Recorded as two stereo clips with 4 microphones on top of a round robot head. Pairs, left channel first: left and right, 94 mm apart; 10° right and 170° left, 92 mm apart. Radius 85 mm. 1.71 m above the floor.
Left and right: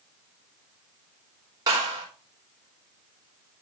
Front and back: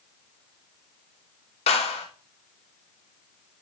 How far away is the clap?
About 4 m.